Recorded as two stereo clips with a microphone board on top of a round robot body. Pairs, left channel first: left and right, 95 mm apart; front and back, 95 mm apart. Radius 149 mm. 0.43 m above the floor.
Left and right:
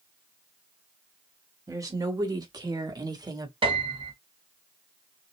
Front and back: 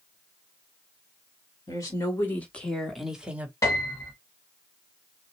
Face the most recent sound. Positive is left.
turn(degrees=-60)